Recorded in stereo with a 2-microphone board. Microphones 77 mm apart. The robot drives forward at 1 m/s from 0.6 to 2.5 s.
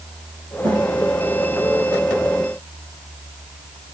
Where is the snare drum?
75° right (ahead or behind), 8.5 m.